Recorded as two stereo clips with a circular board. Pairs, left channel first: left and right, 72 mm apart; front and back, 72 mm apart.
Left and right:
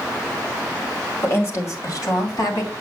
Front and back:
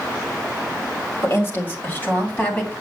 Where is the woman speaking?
45° left, 2.0 m; by 2.7 s 70° left, 3 m.